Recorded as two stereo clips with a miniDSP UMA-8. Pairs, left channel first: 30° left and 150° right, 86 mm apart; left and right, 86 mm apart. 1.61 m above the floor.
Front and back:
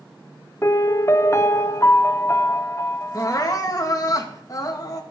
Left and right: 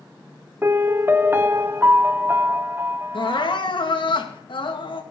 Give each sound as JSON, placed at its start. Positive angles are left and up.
{"t": 0.6, "sound": "a piano", "azimuth_deg": -25, "distance_m": 0.8}
{"t": 3.1, "sound": "crying", "azimuth_deg": 75, "distance_m": 2.0}